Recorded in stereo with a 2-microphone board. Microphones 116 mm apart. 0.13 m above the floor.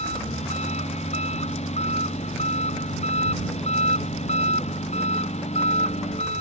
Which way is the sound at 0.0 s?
70° left (ahead or behind).